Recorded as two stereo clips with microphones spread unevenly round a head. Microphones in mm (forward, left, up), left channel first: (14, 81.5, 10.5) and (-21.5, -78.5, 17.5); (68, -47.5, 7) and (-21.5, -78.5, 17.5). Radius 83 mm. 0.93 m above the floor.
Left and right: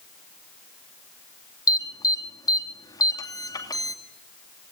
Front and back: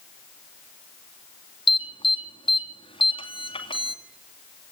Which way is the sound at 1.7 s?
10° left.